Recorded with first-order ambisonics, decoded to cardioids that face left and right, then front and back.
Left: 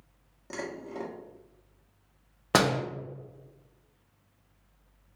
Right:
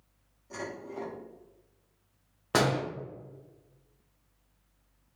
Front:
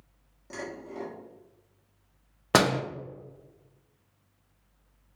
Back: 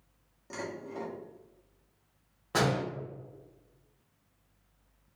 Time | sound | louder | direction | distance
0.5 | dishes clattering | left 1 dB, front 1 dB | 90° left | 0.9 m
2.5 | a door slam | left 2 dB, front 6 dB | 25° left | 0.6 m